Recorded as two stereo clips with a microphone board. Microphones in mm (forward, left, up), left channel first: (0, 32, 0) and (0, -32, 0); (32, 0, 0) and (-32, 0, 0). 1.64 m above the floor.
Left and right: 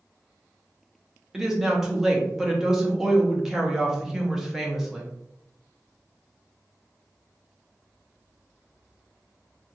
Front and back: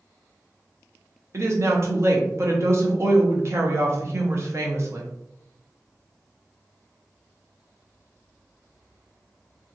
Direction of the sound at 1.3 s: 170° right.